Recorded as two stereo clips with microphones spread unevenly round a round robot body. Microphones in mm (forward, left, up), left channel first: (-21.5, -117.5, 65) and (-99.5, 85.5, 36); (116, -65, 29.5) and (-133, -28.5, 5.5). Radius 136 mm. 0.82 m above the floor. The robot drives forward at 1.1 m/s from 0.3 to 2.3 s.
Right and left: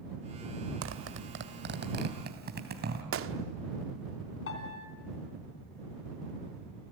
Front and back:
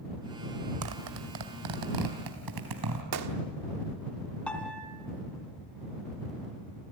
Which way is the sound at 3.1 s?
135° left.